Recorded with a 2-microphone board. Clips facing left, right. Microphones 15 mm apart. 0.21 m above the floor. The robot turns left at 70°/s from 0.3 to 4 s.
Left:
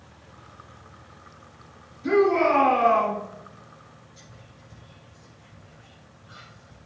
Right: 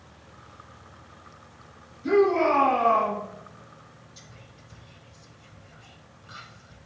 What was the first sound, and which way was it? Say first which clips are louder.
A shout: left 1 dB; 155° left.